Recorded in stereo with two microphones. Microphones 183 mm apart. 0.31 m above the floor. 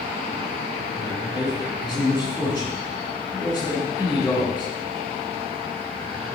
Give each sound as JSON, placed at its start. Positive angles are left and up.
{"t": 0.9, "sound": "a man speaking", "side_deg": 25, "distance_m": 4.0}